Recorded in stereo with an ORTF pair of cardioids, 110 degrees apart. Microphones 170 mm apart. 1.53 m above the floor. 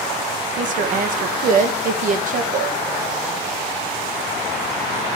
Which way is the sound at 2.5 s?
50° right.